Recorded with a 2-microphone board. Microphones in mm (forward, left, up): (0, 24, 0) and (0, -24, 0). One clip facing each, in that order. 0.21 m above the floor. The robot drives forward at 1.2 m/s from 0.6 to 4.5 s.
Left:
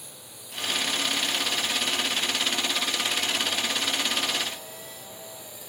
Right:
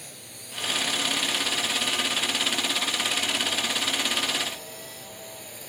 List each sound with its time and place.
0.0 s a drone: 60° right (ahead or behind); by 5.7 s 55° right (ahead or behind)